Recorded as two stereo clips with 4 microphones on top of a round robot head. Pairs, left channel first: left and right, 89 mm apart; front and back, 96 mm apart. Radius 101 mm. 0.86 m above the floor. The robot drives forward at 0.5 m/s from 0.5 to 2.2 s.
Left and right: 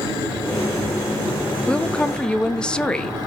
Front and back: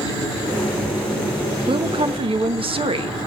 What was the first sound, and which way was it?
A woman speaking, 165° left.